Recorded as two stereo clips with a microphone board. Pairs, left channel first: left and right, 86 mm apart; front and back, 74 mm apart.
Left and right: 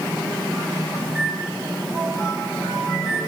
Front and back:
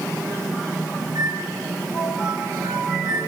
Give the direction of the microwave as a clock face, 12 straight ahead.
5 o'clock.